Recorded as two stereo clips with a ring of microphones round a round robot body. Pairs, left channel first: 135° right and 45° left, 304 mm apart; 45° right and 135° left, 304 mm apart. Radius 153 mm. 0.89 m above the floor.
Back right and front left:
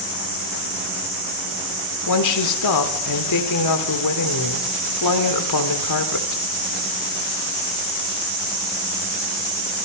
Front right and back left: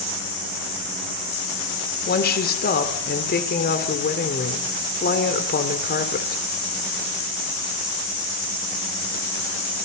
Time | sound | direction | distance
2.1 | a woman speaking | 105° right | 2.5 m